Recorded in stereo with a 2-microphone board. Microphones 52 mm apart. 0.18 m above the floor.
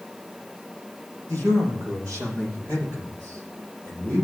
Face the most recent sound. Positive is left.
turn(degrees=-65)  # may be behind; listen again after turning